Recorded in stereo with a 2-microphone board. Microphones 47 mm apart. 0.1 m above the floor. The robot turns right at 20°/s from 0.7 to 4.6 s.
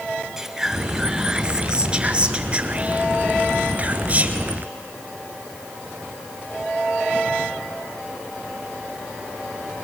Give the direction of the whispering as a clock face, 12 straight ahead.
5 o'clock.